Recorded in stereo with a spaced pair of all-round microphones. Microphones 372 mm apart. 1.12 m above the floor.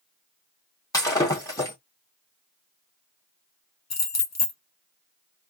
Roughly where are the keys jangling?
Left.